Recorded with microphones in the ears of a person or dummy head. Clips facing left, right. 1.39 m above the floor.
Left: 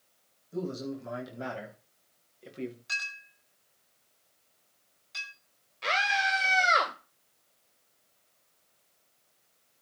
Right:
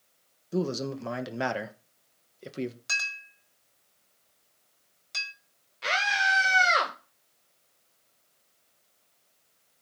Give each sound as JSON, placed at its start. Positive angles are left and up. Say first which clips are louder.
{"t": 0.5, "sound": "a man speaking", "louder": "right 5 dB", "side_deg": -75, "distance_m": 1.6}
{"t": 2.9, "sound": "a clink", "louder": "right 3 dB", "side_deg": -65, "distance_m": 5.0}
{"t": 5.8, "sound": "a scream", "louder": "even", "side_deg": -5, "distance_m": 1.5}